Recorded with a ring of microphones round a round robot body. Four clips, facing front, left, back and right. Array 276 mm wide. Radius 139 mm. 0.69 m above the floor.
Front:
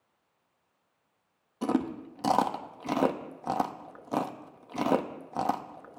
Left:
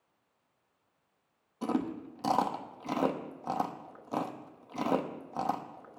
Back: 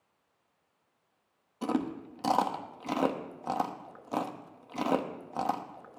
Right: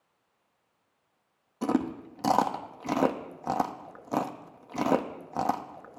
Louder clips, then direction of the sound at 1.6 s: Right 4 dB, front 3 dB; 50° right.